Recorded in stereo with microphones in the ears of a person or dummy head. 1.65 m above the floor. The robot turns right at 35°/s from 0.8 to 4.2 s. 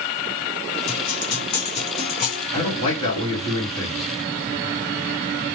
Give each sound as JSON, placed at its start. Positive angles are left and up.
{"t": 0.9, "sound": "a guitar", "azimuth_deg": 65, "distance_m": 2.0}
{"t": 2.5, "sound": "a man speaking", "azimuth_deg": 110, "distance_m": 1.9}